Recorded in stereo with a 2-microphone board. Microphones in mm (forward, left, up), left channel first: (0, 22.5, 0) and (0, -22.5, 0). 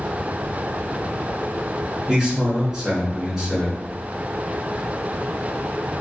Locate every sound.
2.1 s a man speaking: 15° right (ahead or behind), 1.2 m